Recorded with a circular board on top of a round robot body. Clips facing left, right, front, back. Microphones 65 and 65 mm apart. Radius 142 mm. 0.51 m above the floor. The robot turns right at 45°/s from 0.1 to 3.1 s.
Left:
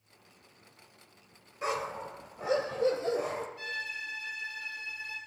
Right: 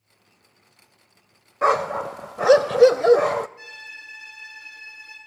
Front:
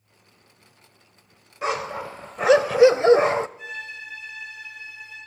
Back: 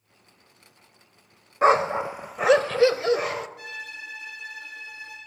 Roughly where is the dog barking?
Behind right.